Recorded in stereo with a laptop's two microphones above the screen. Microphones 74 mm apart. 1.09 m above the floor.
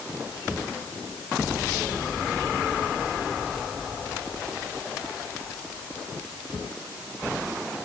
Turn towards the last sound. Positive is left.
No sound to turn to.